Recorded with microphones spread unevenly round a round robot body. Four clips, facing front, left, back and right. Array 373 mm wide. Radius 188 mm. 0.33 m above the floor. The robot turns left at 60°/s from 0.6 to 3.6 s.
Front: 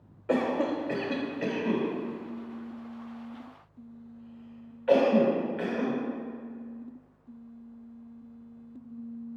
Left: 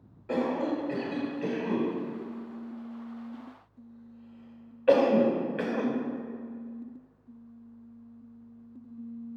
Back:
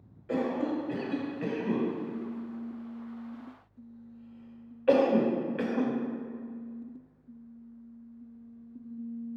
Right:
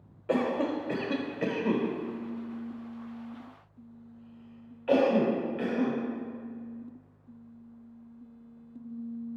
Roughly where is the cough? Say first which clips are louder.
Right 1 dB, front 3 dB; ahead right.